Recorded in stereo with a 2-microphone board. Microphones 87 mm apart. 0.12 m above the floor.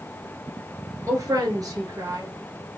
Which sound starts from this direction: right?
A woman speaking, at 1.1 s.